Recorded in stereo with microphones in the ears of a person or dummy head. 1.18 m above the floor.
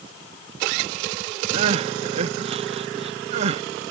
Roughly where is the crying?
Right.